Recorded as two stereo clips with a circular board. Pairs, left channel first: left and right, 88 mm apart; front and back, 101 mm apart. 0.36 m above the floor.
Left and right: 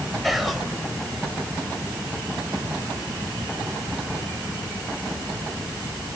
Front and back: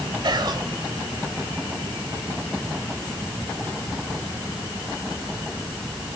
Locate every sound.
0.2 s whispering: straight behind, 1.6 m